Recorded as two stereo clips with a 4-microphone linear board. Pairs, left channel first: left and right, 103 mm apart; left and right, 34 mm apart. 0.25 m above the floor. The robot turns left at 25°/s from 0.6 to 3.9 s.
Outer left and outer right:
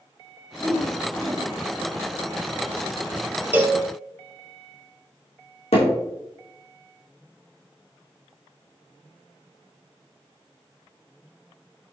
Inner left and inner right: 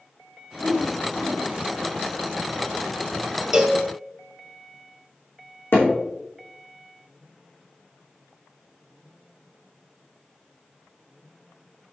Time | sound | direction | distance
0.6 | a whoosh | centre (ahead or behind) | 1.7 m
3.5 | a cowbell | 15° right (ahead or behind) | 1.3 m
5.7 | hammering | 80° left | 5 m